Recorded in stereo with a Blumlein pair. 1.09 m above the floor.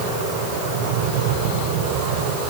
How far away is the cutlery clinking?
I don't hear cutlery clinking.